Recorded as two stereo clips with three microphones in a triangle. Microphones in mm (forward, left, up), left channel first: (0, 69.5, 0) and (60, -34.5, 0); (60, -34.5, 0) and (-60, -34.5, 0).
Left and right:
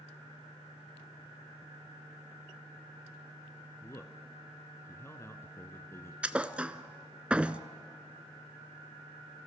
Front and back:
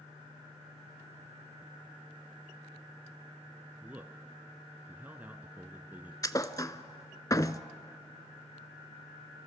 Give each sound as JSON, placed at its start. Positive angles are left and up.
{"t": 3.8, "sound": "a man speaking", "azimuth_deg": 130, "distance_m": 1.2}
{"t": 6.2, "sound": "a thud", "azimuth_deg": 10, "distance_m": 0.7}